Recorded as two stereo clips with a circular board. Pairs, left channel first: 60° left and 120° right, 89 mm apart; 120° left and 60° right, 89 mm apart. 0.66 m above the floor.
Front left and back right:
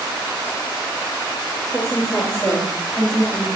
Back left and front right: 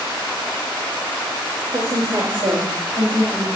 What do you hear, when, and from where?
1.7 s a woman speaking: 25° right, 2.5 m; by 3.5 s 10° right, 3.5 m